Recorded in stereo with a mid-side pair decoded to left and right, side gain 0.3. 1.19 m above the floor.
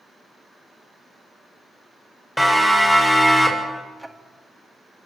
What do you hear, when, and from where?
2.4 s a siren: 5° left, 7 m; by 3.8 s 20° left, 6 m
4.0 s ticking: 10° right, 2.5 m